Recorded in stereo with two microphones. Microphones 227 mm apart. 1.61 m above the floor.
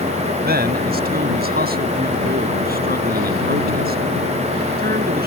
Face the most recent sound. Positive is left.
turn(degrees=-45)  # may be behind; listen again after turning